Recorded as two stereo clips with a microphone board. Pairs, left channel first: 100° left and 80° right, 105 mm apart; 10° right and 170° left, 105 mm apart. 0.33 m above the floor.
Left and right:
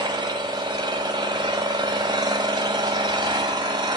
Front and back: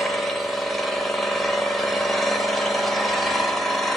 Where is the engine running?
100° right, 1.5 m.